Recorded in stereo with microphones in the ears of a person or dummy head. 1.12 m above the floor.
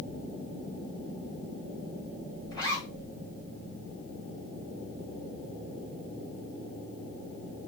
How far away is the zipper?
About 2.5 m.